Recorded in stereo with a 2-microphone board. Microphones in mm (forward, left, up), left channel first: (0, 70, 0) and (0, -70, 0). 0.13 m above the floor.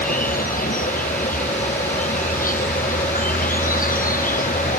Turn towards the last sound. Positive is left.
turn(degrees=85)